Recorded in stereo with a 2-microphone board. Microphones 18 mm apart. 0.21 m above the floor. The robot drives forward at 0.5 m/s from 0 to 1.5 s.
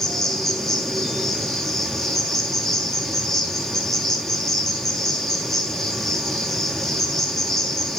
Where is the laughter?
No laughter in this recording.